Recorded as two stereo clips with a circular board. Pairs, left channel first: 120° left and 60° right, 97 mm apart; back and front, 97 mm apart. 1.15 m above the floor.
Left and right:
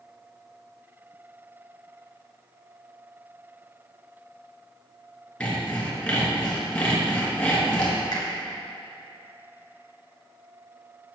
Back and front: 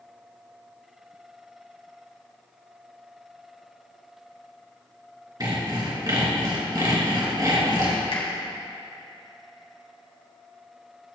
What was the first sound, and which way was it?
Sawing, 45° left.